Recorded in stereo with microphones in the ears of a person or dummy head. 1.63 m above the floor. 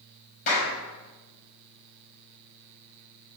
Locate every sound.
0.5 s a clap: 45° left (ahead or behind), 6.5 m